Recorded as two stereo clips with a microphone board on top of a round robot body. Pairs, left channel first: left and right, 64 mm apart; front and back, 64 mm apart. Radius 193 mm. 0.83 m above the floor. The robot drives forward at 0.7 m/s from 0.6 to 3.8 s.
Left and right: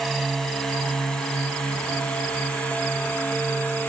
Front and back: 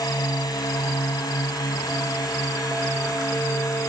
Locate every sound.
0.0 s a drone: 5° left; by 3.9 s 25° left